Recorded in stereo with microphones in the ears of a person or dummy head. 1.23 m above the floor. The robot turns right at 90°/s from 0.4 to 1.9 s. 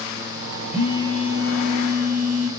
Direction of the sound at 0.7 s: 135° left.